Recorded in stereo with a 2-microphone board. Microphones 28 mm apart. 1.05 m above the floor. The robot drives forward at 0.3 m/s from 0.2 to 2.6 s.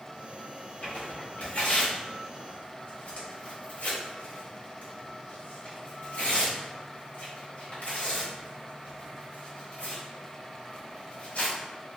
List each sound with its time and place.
0.8 s tearing paper: 70° left (ahead or behind), 1.4 m; by 11.6 s 80° left, 1.4 m